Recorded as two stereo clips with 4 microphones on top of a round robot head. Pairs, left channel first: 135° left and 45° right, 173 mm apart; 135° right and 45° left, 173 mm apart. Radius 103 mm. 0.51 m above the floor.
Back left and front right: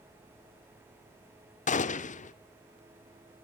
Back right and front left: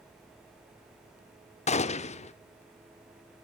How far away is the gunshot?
About 0.8 m.